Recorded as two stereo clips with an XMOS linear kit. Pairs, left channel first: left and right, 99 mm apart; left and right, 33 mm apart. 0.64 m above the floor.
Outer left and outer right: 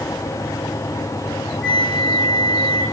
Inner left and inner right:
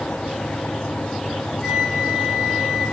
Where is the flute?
10° left (ahead or behind), 8 m.